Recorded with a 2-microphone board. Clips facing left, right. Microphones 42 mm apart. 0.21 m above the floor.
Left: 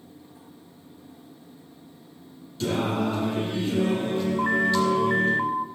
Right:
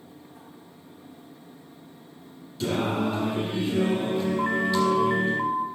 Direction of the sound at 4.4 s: 10° left (ahead or behind).